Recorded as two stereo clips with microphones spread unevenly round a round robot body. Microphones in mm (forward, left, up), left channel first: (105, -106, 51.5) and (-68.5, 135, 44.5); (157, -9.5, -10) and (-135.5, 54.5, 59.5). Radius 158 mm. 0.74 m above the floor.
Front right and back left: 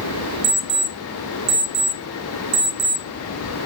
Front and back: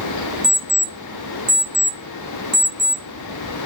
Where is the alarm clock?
90° left, 0.9 m.